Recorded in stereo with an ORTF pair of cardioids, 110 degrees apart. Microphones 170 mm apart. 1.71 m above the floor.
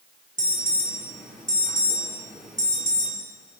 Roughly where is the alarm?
Ahead.